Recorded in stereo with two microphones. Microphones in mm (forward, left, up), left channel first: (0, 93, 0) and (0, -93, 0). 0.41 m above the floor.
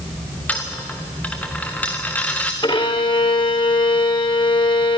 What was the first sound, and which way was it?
A dropped coin, 10° left (ahead or behind).